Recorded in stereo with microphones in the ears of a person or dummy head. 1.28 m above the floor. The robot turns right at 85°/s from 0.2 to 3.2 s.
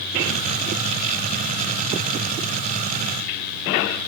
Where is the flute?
No flute in this recording.